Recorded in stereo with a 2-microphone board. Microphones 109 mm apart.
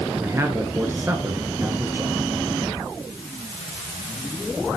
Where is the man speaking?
25° right (ahead or behind), 1.8 m.